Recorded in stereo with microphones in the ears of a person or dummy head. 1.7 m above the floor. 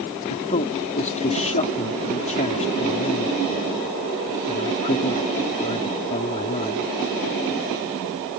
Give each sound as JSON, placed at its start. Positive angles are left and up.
{"t": 0.3, "sound": "a man speaking", "side_deg": 35}